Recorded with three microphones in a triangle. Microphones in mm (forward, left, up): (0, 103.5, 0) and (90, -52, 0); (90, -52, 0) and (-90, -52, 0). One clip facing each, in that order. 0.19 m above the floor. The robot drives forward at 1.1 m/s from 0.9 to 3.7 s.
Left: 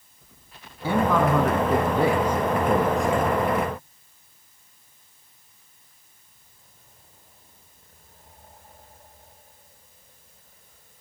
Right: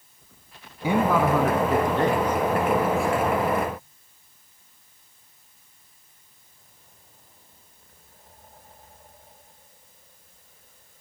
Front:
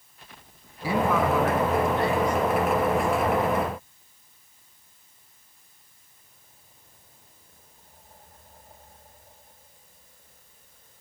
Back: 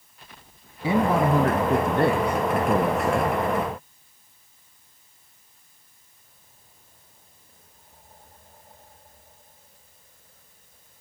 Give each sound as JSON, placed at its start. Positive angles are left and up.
{"t": 0.8, "sound": "a man speaking", "azimuth_deg": -125, "distance_m": 1.4}